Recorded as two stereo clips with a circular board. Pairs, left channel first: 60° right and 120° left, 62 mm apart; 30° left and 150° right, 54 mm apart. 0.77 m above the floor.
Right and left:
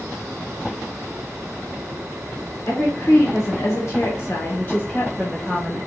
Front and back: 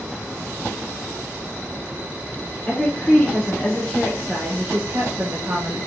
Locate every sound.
2.7 s a woman speaking: 25° right, 1.4 m; by 5.8 s 150° right, 1.0 m